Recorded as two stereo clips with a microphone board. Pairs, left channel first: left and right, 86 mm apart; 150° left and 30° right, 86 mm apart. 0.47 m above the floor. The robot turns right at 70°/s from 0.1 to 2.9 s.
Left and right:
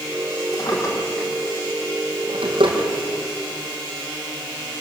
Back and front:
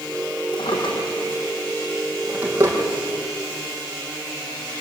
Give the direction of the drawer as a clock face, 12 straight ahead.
8 o'clock.